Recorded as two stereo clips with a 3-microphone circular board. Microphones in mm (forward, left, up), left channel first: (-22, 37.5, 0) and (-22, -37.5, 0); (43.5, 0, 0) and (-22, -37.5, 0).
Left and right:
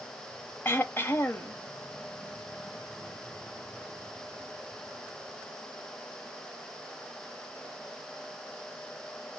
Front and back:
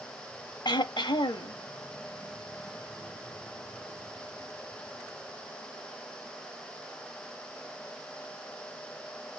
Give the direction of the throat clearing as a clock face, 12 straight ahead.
11 o'clock.